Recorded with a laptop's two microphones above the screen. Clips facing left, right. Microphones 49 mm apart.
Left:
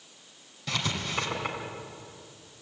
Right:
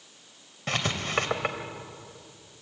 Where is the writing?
40° right (ahead or behind), 3 m.